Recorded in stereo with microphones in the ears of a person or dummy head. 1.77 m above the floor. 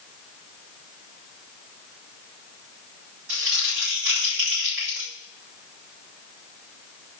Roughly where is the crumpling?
Right.